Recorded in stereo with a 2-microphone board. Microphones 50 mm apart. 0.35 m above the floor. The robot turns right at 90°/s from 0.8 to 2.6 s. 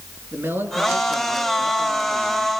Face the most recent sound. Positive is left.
turn(degrees=35)